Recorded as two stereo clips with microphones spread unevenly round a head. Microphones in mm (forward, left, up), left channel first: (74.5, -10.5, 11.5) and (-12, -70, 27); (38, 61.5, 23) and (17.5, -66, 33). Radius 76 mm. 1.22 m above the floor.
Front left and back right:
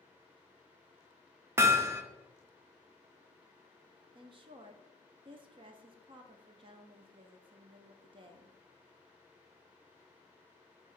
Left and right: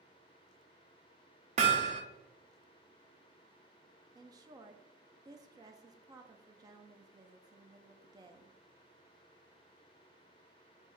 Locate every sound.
1.6 s hammering: 100° right, 0.6 m
4.2 s a woman speaking: 150° right, 0.5 m